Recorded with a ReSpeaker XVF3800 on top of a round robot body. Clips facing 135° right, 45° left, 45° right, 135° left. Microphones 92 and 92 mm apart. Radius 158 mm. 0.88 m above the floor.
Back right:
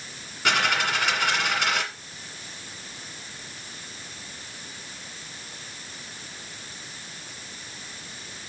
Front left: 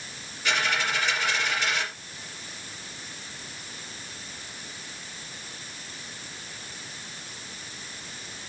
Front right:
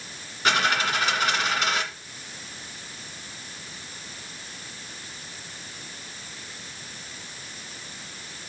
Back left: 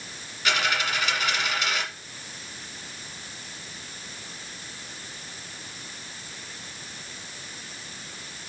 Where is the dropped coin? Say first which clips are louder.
Back right 3 dB, front right 3 dB; 100° right, 1.8 m.